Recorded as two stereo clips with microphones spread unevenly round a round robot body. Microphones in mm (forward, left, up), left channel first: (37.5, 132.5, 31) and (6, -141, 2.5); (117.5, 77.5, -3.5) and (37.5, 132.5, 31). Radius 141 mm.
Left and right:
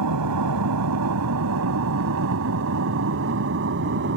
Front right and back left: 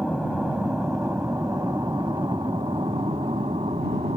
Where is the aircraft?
125° right; by 4.2 s 150° right.